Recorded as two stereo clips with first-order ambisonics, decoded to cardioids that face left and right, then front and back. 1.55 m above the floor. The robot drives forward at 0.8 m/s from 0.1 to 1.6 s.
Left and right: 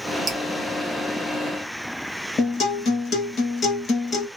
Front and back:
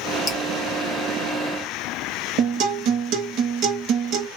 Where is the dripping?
40° right, 0.9 m; by 0.4 s 50° right, 0.9 m.